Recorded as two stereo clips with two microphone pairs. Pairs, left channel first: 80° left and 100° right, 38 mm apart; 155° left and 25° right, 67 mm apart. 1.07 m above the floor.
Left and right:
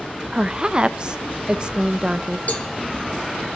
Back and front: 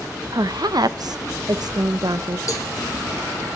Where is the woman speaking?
40° right, 0.6 m.